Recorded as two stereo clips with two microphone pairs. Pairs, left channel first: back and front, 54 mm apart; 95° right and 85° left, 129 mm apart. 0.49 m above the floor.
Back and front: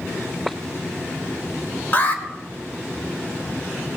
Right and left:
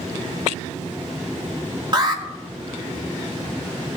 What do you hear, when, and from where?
1.9 s an alarm: 130° left, 1.4 m